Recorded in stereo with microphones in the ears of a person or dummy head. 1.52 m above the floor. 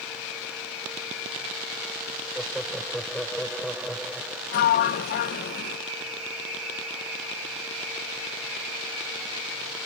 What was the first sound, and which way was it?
Laughter, centre (ahead or behind).